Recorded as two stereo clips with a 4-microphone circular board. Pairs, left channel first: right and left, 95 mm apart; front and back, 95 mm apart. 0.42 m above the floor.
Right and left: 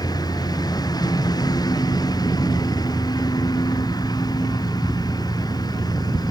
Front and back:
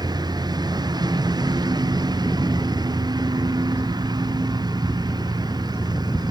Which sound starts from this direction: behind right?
A lawn mower, at 0.0 s.